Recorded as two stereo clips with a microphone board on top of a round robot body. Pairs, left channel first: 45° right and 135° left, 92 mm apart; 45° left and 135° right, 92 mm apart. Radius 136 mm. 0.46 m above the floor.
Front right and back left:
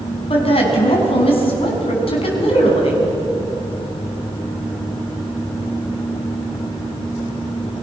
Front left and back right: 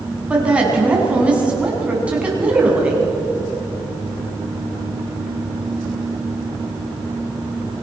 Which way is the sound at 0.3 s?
60° right.